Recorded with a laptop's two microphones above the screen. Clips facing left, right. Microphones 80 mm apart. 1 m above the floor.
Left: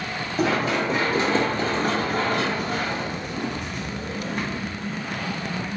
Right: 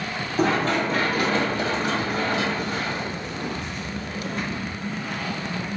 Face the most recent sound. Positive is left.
turn(degrees=65)  # may be behind; listen again after turning